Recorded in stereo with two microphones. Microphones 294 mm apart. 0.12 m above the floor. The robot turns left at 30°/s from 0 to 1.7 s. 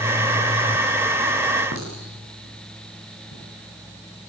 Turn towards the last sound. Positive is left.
turn(degrees=85)